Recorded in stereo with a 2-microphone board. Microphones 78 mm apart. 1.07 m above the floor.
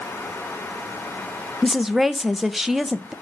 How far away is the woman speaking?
About 0.6 m.